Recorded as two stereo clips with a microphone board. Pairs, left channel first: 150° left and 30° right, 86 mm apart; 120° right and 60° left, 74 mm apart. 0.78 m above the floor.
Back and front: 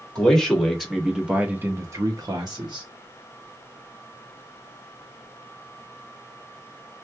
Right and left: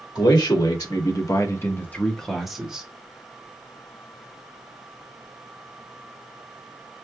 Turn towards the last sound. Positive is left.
turn(degrees=-10)